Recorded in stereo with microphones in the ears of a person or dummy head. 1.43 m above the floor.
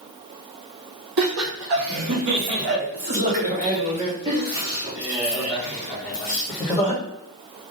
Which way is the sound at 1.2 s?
80° right.